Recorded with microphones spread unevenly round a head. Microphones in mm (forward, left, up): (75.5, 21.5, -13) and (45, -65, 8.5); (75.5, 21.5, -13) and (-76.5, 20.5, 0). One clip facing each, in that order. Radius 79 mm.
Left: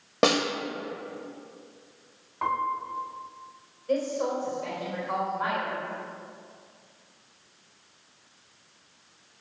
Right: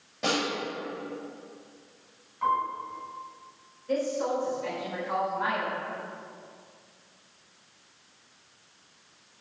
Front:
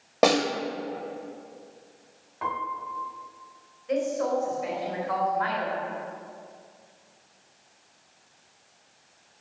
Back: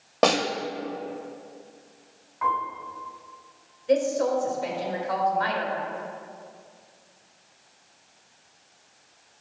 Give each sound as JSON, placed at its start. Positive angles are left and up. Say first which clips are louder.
{"t": 0.2, "sound": "a snare drum", "louder": "left 6 dB, front 1 dB", "azimuth_deg": 85, "distance_m": 1.8}
{"t": 2.4, "sound": "a piano", "louder": "right 1 dB, back 4 dB", "azimuth_deg": 50, "distance_m": 2.0}
{"t": 3.9, "sound": "a woman speaking", "louder": "left 1 dB, back 4 dB", "azimuth_deg": 150, "distance_m": 4.0}